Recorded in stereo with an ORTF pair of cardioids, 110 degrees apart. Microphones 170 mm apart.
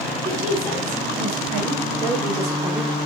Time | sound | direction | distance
0.2 | a woman speaking | 40° right | 2 m